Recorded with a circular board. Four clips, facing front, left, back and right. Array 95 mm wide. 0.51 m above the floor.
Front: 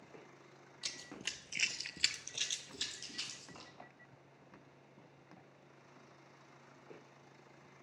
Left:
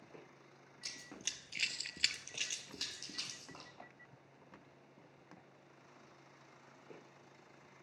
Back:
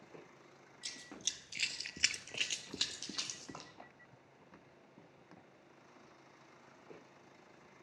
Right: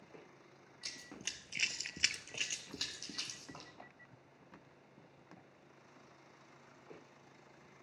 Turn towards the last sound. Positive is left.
turn(degrees=-170)